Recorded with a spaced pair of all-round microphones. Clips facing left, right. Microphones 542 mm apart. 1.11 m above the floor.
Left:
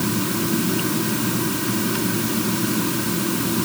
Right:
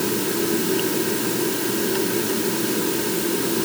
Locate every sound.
0.0 s a fan: 30° left (ahead or behind)